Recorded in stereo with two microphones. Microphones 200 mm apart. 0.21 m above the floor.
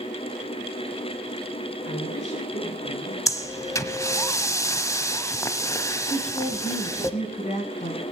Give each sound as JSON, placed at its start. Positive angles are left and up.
{"t": 1.9, "sound": "a man speaking", "side_deg": 60, "distance_m": 8.5}
{"t": 3.3, "sound": "breathing", "side_deg": 15, "distance_m": 0.7}
{"t": 6.1, "sound": "a woman speaking", "side_deg": 40, "distance_m": 1.6}